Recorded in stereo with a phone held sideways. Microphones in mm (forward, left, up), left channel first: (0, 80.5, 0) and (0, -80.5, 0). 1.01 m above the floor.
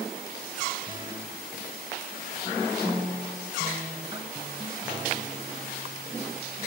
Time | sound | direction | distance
0.9 | a guitar | 30° right (ahead or behind) | 1.0 m